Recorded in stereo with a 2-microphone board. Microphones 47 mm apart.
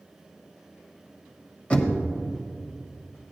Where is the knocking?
30° left (ahead or behind), 1.1 m.